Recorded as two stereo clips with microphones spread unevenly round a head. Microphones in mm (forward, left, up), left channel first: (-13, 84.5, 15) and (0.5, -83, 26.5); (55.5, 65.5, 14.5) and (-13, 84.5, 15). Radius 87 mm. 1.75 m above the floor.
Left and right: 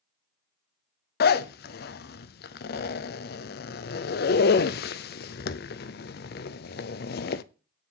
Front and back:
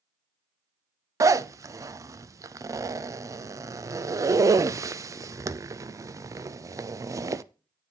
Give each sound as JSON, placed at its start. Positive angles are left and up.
{"t": 1.2, "sound": "a zipper", "azimuth_deg": 125, "distance_m": 0.5}